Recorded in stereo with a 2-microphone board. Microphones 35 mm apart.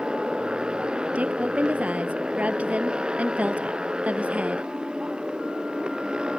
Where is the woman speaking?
40° right (ahead or behind).